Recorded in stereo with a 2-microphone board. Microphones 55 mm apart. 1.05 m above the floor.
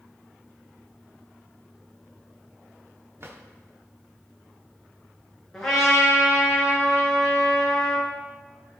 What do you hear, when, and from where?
3.2 s a drawer: 50° right (ahead or behind), 1.6 m
5.5 s a trumpet: 10° left (ahead or behind), 5 m